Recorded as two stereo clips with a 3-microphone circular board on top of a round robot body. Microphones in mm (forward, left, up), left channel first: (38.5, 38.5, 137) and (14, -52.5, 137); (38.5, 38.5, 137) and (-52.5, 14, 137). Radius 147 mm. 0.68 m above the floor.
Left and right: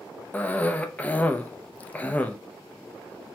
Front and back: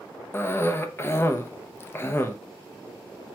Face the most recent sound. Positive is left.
turn(degrees=25)